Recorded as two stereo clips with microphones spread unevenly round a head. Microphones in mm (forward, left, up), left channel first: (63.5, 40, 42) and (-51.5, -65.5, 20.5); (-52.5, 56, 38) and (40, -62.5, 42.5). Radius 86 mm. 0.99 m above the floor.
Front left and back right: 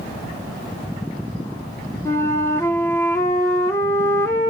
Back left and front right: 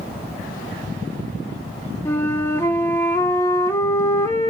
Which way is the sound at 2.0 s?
70° left.